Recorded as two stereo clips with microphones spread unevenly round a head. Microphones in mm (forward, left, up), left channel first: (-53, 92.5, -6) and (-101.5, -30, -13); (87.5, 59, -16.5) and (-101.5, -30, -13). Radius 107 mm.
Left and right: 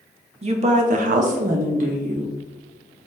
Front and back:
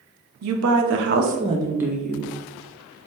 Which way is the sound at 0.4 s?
150° right.